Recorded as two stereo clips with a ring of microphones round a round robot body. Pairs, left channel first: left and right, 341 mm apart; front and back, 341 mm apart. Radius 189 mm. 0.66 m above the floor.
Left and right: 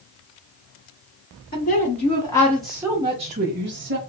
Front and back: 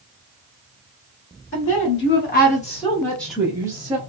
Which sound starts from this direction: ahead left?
A woman speaking, at 1.5 s.